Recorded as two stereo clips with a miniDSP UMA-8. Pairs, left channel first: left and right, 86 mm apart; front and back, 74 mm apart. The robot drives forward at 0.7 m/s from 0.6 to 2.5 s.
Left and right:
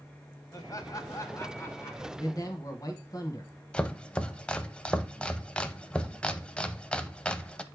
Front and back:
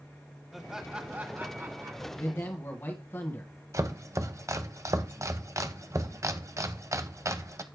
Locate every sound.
0.5 s laughter: 95° left, 1.2 m; by 2.0 s 145° left, 1.6 m
2.1 s a man speaking: 45° left, 1.8 m; by 3.5 s 55° left, 1.7 m
3.7 s chopping: 165° left, 0.6 m